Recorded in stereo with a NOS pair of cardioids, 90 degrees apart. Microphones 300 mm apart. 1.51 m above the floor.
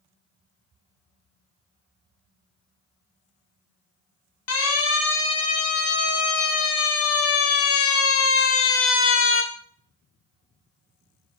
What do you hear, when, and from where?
4.5 s a siren: 55° left, 5.5 m; by 9.4 s 40° left, 3 m